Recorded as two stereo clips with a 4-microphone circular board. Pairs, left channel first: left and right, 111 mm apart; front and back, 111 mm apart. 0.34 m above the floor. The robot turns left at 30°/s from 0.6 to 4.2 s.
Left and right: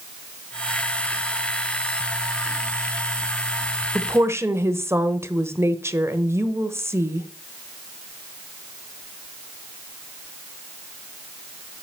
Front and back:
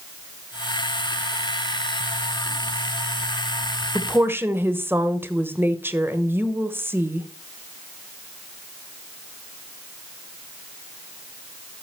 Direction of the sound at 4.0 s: 125° right.